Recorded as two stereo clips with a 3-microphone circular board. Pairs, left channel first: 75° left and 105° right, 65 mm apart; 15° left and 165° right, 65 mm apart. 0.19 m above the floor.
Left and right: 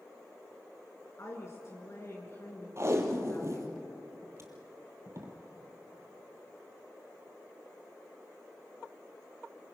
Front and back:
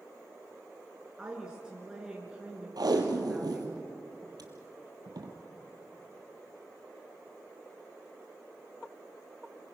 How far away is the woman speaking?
About 3 m.